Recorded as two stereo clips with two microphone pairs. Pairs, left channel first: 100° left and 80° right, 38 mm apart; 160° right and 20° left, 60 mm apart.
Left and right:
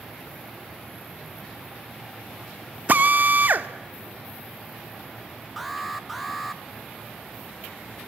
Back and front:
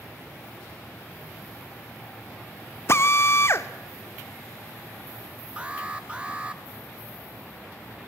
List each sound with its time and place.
2.9 s a drill: 115° right, 1.4 m
5.6 s an alarm: 10° left, 1.7 m